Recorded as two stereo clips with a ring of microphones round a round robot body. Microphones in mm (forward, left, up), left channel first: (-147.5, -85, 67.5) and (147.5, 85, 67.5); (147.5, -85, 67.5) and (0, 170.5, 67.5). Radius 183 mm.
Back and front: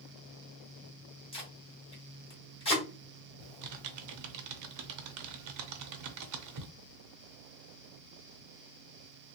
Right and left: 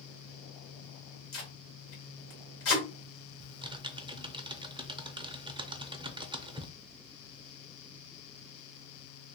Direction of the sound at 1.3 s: 80° right.